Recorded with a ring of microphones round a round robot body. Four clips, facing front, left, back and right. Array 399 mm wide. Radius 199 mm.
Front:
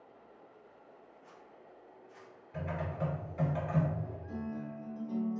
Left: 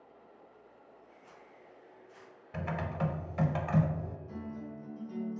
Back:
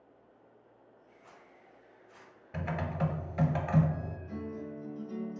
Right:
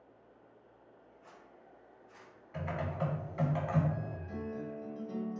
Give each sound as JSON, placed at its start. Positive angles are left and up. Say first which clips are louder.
{"t": 1.2, "sound": "a zipper", "louder": "right 1 dB, front 1 dB", "azimuth_deg": -145, "distance_m": 1.7}
{"t": 2.5, "sound": "typing on a keyboard", "louder": "left 1 dB, back 3 dB", "azimuth_deg": 150, "distance_m": 0.5}
{"t": 4.3, "sound": "a guitar", "louder": "right 2 dB, even", "azimuth_deg": -95, "distance_m": 1.3}